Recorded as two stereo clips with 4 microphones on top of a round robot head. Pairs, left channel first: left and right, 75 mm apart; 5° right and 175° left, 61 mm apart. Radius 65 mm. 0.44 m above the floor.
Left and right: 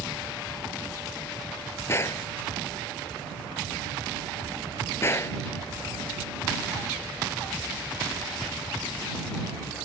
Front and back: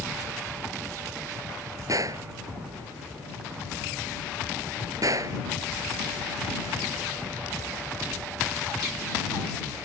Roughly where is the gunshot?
Behind left.